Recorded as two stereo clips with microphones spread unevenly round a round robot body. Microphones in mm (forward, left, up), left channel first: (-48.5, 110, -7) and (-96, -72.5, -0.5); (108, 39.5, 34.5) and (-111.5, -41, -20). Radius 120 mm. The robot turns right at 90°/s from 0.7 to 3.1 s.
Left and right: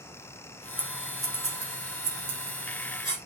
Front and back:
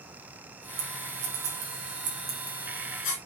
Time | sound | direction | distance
0.8 | scissors | 145° left | 3.5 m